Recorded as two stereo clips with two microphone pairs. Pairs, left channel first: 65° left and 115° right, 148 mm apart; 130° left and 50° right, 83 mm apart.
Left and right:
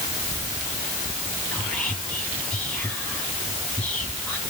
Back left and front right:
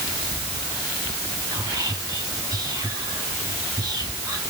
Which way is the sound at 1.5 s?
15° right.